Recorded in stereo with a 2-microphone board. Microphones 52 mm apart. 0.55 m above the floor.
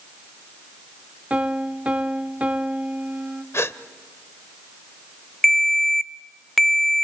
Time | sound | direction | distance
1.3 | a piano | 25° right (ahead or behind) | 1.3 m
3.5 | a gasp | 55° left (ahead or behind) | 0.8 m
5.4 | a ringtone | centre (ahead or behind) | 0.6 m